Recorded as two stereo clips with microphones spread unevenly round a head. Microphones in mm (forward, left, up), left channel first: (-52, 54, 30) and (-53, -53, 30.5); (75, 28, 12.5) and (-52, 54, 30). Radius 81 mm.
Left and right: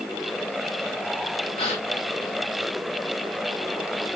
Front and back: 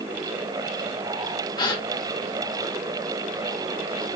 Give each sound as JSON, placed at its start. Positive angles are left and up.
{"t": 1.6, "sound": "a gasp", "azimuth_deg": 45, "distance_m": 0.9}